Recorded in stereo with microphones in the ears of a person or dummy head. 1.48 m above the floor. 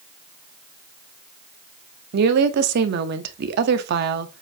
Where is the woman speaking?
55° right (ahead or behind), 0.6 m.